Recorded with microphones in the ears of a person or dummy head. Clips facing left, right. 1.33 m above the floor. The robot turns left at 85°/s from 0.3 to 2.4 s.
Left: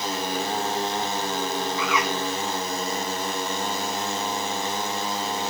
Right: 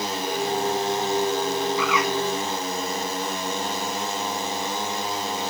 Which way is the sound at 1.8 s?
30° left (ahead or behind).